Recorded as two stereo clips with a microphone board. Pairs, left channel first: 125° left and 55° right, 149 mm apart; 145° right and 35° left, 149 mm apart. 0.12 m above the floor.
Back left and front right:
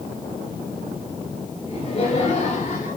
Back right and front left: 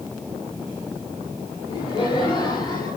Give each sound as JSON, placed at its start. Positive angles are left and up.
{"t": 1.7, "sound": "laughter", "azimuth_deg": 170, "distance_m": 3.0}